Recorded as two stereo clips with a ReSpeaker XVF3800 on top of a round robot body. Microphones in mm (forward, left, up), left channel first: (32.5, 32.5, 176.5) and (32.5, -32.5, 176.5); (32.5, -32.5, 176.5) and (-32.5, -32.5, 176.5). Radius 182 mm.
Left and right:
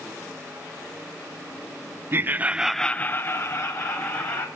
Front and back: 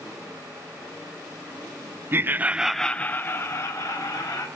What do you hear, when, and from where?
2.1 s laughter: 135° right, 0.7 m; by 4.5 s 50° left, 1.5 m